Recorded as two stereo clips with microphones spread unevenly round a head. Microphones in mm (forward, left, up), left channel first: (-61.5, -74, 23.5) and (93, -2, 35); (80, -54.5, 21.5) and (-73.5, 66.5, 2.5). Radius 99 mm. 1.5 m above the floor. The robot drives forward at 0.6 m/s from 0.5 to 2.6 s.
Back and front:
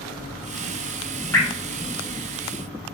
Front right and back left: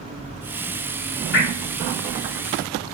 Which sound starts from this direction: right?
Dripping, at 1.3 s.